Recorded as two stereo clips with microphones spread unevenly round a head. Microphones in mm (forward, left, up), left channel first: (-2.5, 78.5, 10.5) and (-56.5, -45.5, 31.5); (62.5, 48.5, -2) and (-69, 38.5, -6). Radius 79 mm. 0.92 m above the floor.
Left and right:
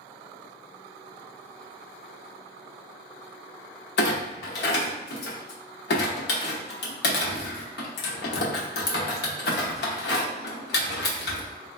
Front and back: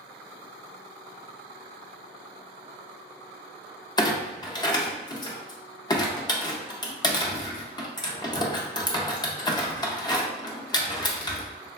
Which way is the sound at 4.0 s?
65° left.